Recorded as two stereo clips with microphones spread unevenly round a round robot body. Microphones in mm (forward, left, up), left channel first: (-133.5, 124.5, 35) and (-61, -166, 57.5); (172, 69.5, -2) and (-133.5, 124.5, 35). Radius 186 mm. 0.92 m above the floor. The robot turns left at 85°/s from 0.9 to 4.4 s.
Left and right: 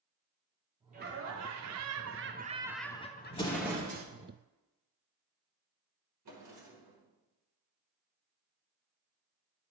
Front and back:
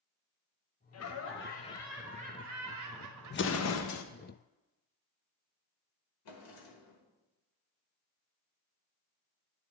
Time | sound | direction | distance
0.9 | laughter | 10° right | 1.0 m
3.3 | an explosion | 40° left | 0.6 m
6.2 | a drawer | 30° right | 1.3 m